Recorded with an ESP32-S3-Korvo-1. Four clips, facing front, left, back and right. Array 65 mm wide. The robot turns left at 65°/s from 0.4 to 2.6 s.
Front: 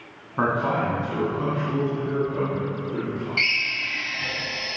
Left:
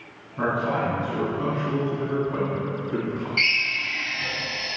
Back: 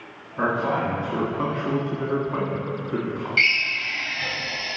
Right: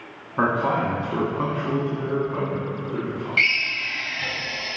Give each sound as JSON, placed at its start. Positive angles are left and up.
{"t": 0.4, "sound": "a man speaking", "azimuth_deg": -55, "distance_m": 2.0}
{"t": 3.4, "sound": "a drill", "azimuth_deg": -135, "distance_m": 1.7}